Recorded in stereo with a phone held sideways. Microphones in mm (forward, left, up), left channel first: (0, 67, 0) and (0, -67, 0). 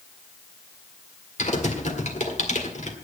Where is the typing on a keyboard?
60° left (ahead or behind), 1.8 m.